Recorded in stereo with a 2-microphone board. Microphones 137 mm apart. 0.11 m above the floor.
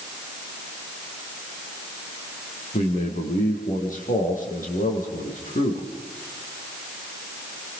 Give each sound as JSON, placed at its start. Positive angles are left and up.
{"t": 2.7, "sound": "a man speaking", "side_deg": 75, "distance_m": 6.0}